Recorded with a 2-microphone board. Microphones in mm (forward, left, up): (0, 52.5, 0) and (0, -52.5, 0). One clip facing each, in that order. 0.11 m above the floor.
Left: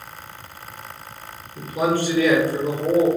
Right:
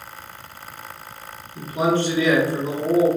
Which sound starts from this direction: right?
A man speaking, at 1.6 s.